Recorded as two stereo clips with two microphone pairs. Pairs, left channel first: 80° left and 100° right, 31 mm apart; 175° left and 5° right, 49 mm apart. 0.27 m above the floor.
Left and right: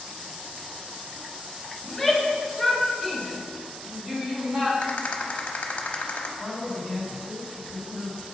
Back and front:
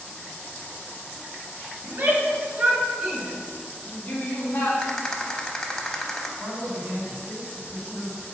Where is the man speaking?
15° right, 2 m.